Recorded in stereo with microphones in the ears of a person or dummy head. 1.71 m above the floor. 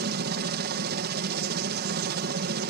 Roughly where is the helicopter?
Right.